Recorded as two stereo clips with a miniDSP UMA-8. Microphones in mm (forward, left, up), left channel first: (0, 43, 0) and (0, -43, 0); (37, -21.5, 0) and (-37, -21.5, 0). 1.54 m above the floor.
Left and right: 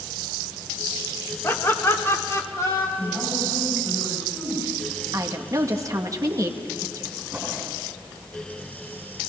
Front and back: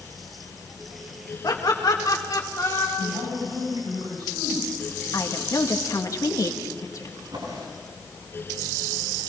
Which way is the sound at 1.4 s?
35° left.